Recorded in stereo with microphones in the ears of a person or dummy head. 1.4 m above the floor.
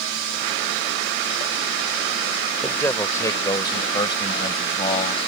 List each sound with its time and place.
2.6 s a man speaking: 10° left (ahead or behind); by 5.3 s 30° left (ahead or behind)